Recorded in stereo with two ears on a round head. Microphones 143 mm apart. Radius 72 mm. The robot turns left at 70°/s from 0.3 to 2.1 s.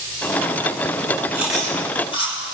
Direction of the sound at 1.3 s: 15° right (ahead or behind).